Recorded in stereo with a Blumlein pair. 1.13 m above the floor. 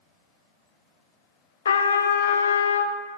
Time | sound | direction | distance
1.6 | a trumpet | 65° left | 0.6 m